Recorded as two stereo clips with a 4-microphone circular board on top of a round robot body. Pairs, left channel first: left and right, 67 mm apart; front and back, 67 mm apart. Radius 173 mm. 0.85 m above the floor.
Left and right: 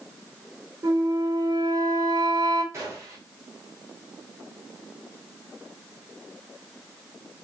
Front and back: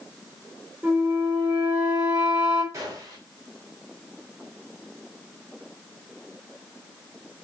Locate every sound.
0.8 s a flute: 120° right, 4 m
2.7 s a gunshot: 140° right, 7.5 m